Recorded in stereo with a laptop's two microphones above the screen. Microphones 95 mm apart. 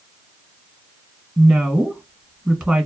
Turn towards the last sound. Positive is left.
turn(degrees=-15)  # may be behind; listen again after turning